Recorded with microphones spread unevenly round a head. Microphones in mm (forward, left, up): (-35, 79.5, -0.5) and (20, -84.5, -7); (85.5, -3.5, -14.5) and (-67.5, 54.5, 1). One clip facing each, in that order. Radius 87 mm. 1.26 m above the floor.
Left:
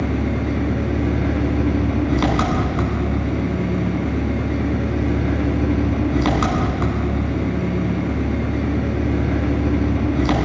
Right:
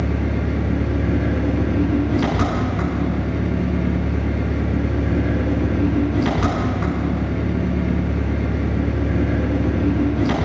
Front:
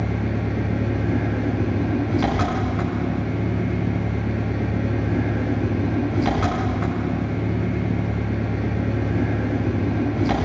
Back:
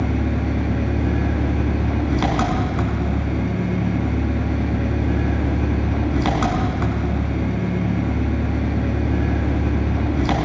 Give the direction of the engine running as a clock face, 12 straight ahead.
8 o'clock.